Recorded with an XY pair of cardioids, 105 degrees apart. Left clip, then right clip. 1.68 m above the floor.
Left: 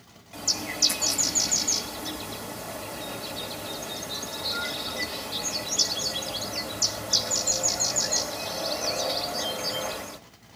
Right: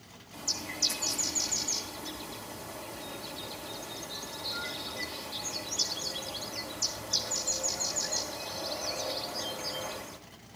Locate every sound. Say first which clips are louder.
0.3 s a bird: left 6 dB; 60° left, 1.8 m